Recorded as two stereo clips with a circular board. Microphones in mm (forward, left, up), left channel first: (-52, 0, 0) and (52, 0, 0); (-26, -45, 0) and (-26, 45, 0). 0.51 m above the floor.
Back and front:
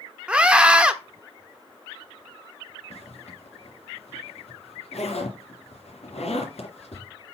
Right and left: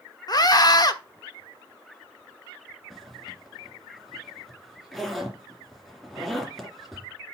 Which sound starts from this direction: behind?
A zipper, at 2.9 s.